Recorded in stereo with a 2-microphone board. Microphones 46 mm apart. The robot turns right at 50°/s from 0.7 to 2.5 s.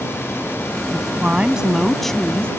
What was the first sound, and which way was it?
A woman speaking, 50° right.